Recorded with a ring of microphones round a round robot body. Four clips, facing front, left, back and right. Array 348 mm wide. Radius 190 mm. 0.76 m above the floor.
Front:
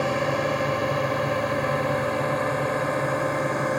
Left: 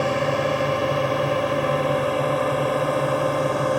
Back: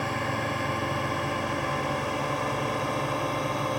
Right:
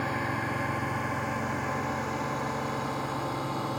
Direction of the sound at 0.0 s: 65° left.